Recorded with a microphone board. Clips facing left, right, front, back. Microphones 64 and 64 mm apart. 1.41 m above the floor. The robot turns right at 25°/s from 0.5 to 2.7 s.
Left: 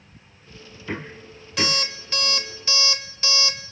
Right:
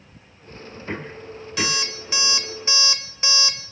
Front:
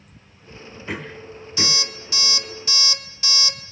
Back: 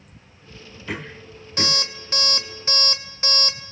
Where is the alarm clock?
175° right, 1.0 m; by 3.7 s 150° right, 1.0 m.